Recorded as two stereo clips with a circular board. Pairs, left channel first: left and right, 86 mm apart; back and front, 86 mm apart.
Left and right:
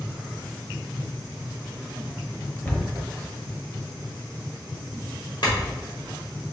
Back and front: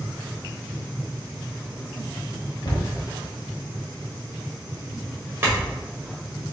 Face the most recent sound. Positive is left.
turn(degrees=65)